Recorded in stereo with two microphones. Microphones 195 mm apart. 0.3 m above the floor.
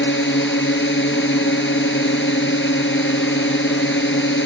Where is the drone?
75° left (ahead or behind).